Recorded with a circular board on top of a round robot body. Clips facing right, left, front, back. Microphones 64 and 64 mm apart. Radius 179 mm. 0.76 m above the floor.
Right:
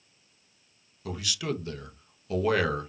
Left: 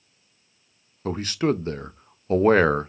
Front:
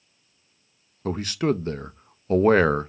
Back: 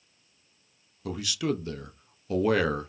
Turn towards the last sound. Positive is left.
turn(degrees=45)